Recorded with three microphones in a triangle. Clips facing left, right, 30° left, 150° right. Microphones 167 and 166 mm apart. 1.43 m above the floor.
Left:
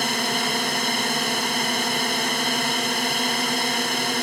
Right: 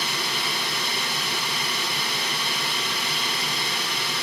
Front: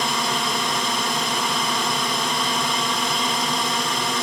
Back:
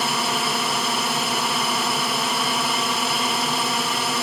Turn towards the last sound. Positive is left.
turn(degrees=125)